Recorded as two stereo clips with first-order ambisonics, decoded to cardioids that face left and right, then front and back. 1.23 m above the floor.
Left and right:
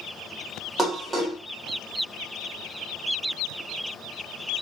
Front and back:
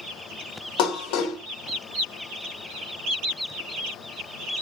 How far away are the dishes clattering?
About 0.9 m.